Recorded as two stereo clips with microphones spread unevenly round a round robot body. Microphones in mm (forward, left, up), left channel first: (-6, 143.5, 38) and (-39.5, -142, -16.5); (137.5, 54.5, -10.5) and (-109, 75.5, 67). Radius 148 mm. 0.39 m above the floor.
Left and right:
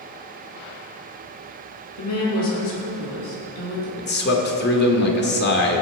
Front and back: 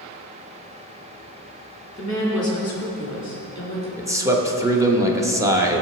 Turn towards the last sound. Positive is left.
turn(degrees=70)